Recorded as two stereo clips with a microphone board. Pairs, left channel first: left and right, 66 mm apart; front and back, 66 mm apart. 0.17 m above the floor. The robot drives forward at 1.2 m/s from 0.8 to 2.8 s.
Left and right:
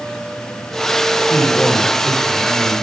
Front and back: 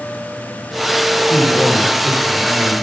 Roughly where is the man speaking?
Ahead left.